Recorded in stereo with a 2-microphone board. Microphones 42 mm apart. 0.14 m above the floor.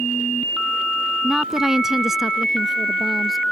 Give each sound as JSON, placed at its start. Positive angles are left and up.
{"t": 1.2, "sound": "a woman speaking", "side_deg": -15}